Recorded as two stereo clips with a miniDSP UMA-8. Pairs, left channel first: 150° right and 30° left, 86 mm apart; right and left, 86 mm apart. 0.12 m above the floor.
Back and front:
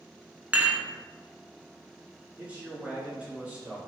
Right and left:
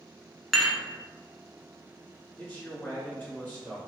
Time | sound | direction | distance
0.5 | dishes clattering | straight ahead | 0.7 m
2.4 | a man speaking | 35° right | 1.7 m